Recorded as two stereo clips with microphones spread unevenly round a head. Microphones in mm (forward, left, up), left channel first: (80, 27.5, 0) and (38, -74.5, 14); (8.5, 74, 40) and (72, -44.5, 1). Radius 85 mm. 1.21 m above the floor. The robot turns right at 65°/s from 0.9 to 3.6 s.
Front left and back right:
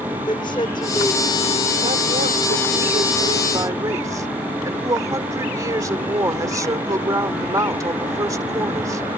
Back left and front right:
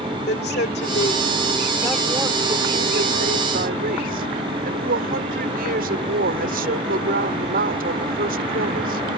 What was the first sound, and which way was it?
A woman speaking, 130° left.